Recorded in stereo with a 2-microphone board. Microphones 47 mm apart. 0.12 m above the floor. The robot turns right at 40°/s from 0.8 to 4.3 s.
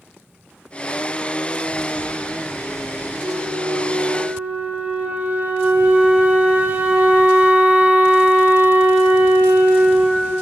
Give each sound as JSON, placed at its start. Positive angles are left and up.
{"t": 3.2, "sound": "a flute", "azimuth_deg": -80, "distance_m": 3.0}